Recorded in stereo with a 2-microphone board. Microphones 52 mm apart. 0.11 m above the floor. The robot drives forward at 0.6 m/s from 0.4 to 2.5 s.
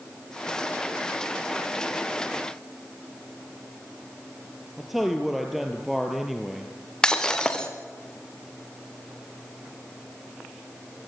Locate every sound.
4.8 s a man speaking: 5° right (ahead or behind), 2 m
7.0 s breaking glass: 15° left (ahead or behind), 3 m